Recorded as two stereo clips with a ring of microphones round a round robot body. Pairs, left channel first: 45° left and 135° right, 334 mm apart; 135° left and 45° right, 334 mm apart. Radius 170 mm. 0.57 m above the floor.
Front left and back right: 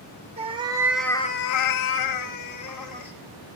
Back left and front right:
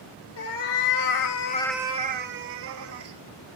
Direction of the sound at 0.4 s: 150° left.